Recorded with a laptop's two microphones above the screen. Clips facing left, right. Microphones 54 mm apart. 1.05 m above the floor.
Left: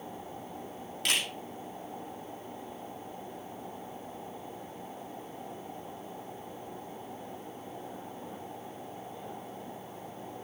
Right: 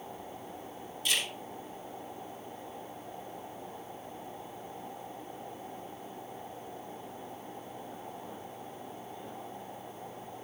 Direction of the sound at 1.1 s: 85° left.